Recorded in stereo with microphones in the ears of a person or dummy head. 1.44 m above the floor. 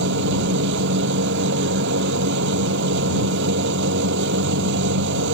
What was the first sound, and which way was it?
A machine running, 65° right (ahead or behind).